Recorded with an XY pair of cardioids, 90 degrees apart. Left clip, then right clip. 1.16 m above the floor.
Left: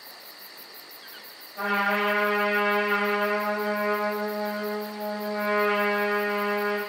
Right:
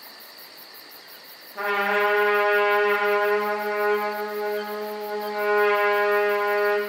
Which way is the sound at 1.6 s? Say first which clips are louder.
Right 2 dB; 55° right.